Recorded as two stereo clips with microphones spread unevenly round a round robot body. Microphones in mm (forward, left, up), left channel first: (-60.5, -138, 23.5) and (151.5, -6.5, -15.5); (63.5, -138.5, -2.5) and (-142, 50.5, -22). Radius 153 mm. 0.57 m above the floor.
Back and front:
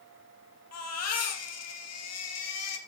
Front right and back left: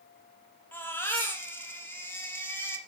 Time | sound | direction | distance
0.7 | a baby crying | 125° right | 4.5 m